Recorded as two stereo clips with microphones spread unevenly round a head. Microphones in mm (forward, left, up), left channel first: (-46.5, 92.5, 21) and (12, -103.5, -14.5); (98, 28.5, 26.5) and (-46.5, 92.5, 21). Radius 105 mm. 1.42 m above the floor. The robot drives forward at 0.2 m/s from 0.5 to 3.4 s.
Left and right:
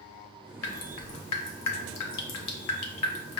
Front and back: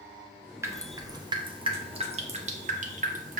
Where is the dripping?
80° left, 0.7 m; by 3.4 s 120° left, 0.9 m.